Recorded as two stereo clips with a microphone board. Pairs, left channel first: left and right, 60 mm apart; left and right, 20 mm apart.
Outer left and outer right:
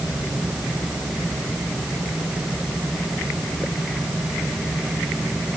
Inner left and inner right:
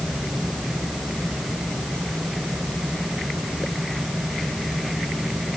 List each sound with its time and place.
Only background noise.